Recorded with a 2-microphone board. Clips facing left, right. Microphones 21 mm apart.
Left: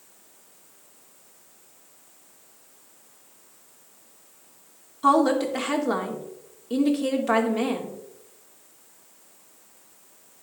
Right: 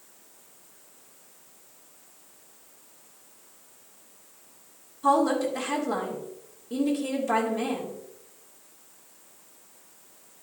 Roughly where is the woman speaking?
Left.